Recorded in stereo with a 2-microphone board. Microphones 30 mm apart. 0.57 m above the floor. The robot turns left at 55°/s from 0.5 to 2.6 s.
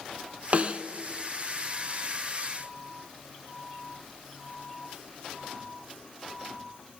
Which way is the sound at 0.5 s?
40° right (ahead or behind).